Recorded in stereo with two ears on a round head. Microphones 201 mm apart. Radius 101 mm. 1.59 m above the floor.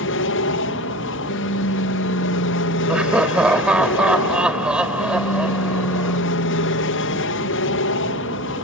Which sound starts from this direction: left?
An aircraft, at 0.0 s.